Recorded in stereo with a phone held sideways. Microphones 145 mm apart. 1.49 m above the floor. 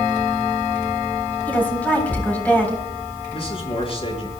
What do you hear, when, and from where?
1.5 s a woman speaking: 10° left (ahead or behind), 4 m
3.3 s a man speaking: 40° left (ahead or behind), 5 m